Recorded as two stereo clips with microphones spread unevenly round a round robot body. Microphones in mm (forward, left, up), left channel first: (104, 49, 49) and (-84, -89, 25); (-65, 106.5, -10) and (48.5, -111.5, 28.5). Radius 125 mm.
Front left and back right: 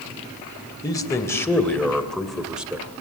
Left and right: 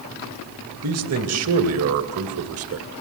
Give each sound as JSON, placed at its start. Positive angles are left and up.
{"t": 0.8, "sound": "a man speaking", "azimuth_deg": -40, "distance_m": 2.5}